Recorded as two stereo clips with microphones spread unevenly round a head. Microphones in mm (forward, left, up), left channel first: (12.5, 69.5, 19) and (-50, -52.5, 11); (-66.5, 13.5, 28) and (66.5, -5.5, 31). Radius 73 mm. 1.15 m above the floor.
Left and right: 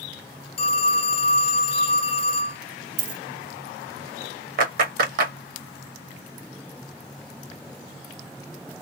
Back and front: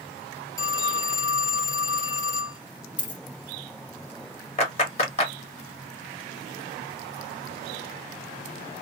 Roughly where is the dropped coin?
Behind right.